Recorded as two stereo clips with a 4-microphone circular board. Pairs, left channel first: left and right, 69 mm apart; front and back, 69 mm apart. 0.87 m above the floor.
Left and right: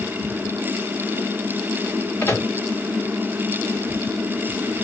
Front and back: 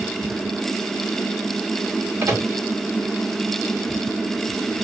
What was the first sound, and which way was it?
A microwave, 135° left.